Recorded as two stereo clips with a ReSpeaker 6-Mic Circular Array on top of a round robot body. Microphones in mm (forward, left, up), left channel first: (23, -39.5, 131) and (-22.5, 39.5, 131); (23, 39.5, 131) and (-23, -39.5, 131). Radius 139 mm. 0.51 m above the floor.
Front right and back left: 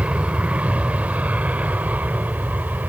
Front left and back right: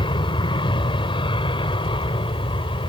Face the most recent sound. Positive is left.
turn(degrees=50)